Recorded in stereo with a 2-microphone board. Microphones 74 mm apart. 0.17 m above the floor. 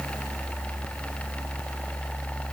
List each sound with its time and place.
Only background noise.